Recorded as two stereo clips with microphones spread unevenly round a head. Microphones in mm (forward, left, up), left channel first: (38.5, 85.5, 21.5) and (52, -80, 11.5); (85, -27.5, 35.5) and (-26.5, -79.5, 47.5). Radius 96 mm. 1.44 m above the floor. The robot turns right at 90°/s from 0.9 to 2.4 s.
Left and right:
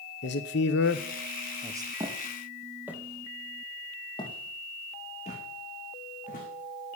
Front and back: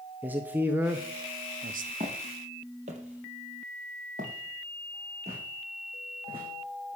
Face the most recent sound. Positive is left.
turn(degrees=145)